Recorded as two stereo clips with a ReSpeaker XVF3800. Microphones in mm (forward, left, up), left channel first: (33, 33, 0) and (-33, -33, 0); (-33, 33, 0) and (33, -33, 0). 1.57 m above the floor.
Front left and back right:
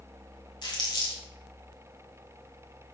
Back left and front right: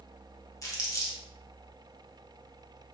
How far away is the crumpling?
About 0.7 m.